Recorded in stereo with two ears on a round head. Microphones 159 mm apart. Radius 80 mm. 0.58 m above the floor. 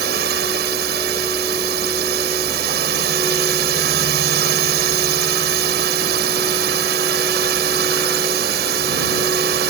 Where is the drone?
60° right (ahead or behind).